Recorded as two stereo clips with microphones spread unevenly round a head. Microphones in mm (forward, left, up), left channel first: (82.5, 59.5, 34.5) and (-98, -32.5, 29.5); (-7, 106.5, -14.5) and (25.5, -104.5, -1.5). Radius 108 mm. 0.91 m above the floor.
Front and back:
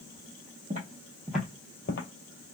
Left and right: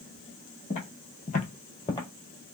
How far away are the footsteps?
About 1.6 m.